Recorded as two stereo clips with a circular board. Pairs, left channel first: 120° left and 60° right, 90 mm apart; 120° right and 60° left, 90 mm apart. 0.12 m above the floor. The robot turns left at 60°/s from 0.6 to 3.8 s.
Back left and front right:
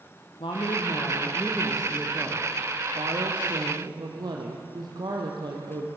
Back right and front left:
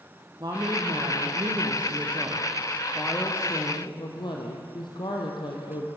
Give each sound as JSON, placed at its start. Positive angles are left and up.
{"t": 0.4, "sound": "a woman speaking", "azimuth_deg": 100, "distance_m": 4.0}